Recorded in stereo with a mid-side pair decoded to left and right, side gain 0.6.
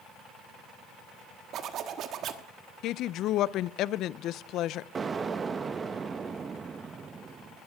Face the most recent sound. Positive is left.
turn(degrees=-30)